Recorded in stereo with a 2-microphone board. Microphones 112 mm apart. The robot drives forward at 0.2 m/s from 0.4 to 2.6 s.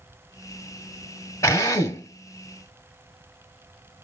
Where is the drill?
25° left (ahead or behind), 1.3 m.